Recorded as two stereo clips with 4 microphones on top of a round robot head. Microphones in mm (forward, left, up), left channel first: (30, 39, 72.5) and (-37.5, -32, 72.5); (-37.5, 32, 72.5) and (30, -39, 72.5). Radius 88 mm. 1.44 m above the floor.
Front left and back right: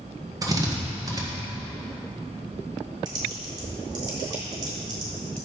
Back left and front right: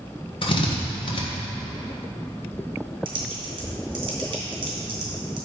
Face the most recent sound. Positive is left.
turn(degrees=-90)